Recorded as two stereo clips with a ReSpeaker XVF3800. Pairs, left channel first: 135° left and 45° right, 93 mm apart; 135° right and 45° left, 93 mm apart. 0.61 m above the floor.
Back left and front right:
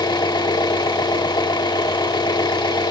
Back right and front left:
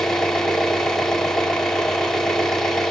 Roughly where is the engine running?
Behind left.